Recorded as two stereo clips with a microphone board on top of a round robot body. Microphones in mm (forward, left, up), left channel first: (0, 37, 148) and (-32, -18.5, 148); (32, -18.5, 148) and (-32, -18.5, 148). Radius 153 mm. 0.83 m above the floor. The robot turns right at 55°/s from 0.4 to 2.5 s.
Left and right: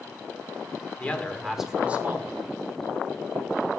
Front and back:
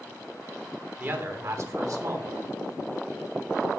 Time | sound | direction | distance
1.0 | a man speaking | 125° left | 1.5 m